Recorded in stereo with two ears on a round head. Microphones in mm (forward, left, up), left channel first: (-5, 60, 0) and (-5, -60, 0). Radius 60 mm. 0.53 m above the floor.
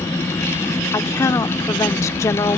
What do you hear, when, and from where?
0.9 s a woman speaking: 20° left (ahead or behind)